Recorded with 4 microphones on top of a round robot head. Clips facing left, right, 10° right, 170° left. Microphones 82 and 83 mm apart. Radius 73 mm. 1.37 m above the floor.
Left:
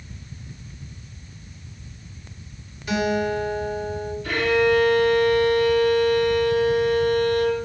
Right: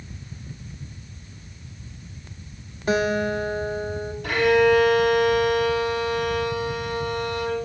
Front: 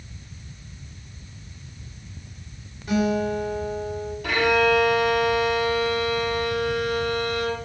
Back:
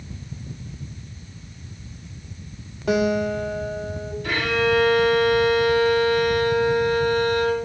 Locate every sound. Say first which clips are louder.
2.9 s a guitar: right 1 dB, back 2 dB; 140° right, 1.9 m
4.2 s a violin: right 2 dB, front 2 dB; 40° right, 4.5 m